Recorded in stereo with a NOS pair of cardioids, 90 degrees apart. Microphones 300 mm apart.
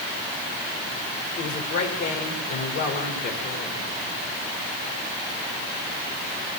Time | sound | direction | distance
1.4 | a woman speaking | 65° left | 4.5 m